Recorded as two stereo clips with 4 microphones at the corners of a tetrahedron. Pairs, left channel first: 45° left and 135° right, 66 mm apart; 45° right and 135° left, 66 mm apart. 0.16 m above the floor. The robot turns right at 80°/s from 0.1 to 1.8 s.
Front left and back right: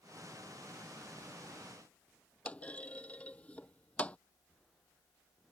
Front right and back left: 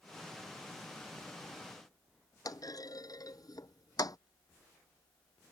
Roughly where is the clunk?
Ahead right.